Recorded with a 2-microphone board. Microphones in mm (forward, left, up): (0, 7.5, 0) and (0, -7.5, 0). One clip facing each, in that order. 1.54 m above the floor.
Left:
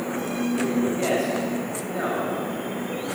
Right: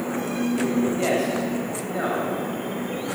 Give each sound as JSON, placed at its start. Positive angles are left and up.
{"t": 1.0, "sound": "a man speaking", "side_deg": -10, "distance_m": 8.5}